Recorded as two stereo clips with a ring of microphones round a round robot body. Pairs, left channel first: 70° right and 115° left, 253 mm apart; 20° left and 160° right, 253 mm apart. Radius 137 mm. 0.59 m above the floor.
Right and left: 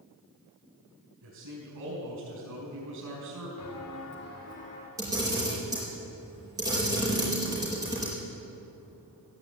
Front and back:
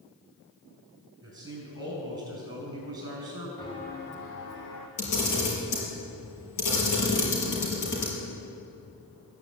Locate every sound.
1.2 s a man speaking: 130° left, 5 m
3.6 s footsteps: 55° right, 1.2 m; by 4.9 s straight ahead, 2 m
5.0 s a camera shutter: 35° left, 4.5 m